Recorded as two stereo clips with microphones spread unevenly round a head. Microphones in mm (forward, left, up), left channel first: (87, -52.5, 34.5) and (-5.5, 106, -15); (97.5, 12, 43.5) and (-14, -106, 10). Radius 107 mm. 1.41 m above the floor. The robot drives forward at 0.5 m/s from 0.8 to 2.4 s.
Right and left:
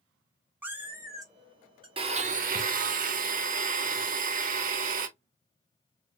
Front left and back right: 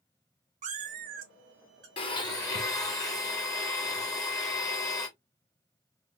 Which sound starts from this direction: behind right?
A cat meowing, at 0.6 s.